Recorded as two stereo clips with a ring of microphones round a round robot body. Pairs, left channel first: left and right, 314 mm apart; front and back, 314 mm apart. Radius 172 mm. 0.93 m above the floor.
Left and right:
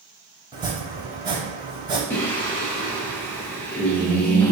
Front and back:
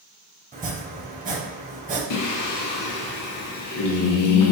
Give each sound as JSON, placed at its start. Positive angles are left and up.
{"t": 0.5, "sound": "chopping", "azimuth_deg": -150, "distance_m": 0.8}
{"t": 2.1, "sound": "singing", "azimuth_deg": 5, "distance_m": 0.6}